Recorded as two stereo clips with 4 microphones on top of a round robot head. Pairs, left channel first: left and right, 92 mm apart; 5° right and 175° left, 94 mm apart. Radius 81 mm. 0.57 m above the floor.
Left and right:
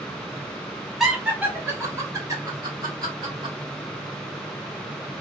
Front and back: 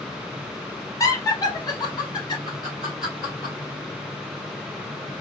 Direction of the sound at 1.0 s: 5° right.